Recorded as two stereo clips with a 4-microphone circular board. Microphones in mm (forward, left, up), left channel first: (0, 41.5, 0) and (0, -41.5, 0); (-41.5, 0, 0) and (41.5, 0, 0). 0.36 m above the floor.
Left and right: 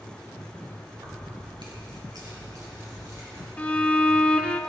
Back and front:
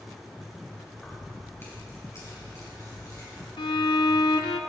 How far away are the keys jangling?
About 3 m.